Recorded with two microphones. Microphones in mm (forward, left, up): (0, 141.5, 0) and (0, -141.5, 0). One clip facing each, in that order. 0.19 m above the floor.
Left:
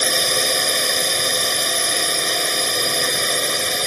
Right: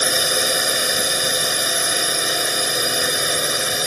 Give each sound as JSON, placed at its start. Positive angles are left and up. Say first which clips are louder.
{"t": 0.0, "sound": "a drone", "louder": "even", "side_deg": -10}